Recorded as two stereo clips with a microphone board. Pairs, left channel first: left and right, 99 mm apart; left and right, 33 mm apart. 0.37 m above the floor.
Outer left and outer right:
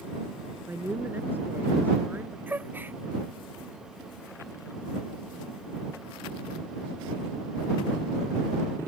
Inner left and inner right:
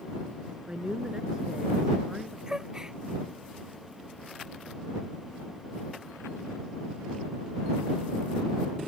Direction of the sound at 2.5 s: 20° right (ahead or behind).